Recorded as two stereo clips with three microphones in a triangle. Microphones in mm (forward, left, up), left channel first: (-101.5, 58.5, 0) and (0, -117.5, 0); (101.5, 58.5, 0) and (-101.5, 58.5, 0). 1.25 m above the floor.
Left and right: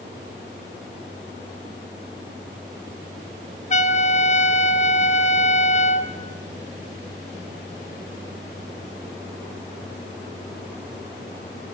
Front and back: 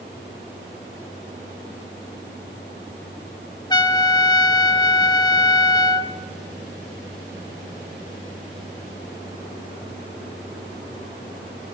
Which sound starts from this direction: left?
A trumpet, at 3.7 s.